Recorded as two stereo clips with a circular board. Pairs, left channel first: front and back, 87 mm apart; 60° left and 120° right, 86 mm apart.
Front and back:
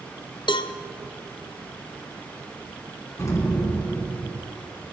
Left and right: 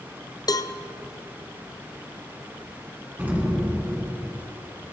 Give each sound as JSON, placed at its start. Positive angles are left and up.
{"t": 0.5, "sound": "a cowbell", "azimuth_deg": 20, "distance_m": 0.5}
{"t": 3.2, "sound": "an explosion", "azimuth_deg": -50, "distance_m": 2.5}